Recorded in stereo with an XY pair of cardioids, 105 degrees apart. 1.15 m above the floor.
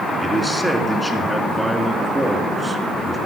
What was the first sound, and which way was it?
A man speaking, 5° right.